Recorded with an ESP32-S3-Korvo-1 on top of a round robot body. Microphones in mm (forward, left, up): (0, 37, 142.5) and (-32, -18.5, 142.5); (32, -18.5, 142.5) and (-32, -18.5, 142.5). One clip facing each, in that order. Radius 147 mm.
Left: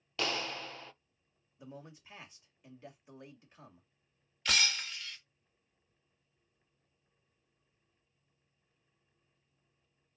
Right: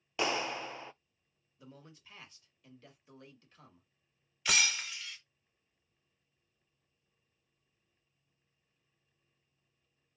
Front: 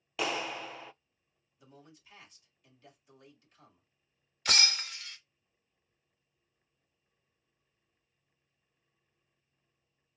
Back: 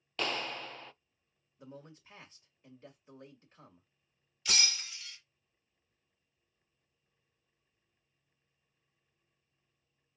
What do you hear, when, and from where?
0.2 s a clap: 75° right, 0.5 m
1.6 s a man speaking: 125° left, 2 m
4.5 s breaking glass: 40° right, 1.0 m